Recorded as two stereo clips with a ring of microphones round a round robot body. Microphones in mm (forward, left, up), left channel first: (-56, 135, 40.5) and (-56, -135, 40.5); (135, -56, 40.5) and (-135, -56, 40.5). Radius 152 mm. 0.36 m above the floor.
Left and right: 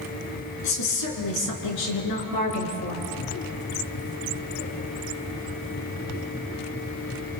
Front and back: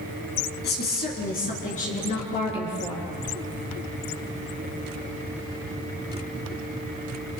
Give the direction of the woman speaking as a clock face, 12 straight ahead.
10 o'clock.